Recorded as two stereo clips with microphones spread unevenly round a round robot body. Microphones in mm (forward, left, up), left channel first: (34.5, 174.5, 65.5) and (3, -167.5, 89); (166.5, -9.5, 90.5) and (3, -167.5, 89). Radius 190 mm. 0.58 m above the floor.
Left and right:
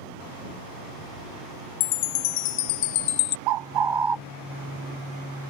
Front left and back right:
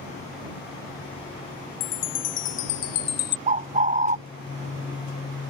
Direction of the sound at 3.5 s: 80° right.